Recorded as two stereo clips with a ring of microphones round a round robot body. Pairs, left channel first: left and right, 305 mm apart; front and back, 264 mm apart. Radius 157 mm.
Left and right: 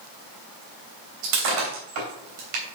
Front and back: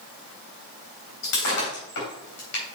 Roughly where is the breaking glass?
Ahead right.